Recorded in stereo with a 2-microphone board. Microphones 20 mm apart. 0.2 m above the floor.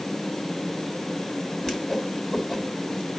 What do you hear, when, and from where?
1.6 s a whoosh: 10° left (ahead or behind), 1.6 m